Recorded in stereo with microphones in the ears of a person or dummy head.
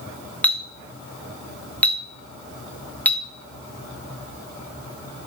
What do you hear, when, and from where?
0.4 s a clink: 10° left (ahead or behind), 0.5 m